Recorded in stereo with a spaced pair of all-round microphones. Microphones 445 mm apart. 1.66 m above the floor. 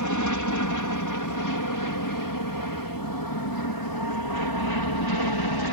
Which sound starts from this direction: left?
An aircraft, at 0.0 s.